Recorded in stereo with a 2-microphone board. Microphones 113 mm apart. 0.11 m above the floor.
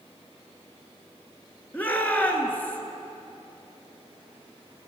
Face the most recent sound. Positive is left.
turn(degrees=15)  # may be behind; listen again after turning